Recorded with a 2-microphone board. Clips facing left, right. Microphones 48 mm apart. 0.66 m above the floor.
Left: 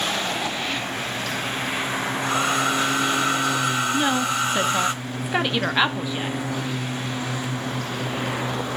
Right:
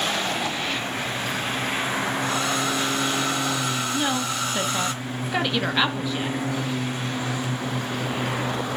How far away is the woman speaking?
About 1.0 m.